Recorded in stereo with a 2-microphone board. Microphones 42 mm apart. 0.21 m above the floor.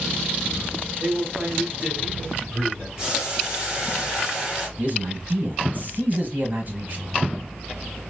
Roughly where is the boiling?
Centre.